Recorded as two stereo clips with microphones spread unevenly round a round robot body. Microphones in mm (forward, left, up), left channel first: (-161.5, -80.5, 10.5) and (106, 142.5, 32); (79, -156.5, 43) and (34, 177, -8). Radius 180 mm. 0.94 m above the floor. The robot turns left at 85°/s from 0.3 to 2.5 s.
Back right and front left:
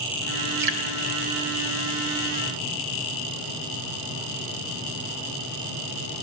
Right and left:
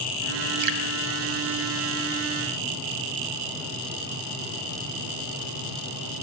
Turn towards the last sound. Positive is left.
turn(degrees=-85)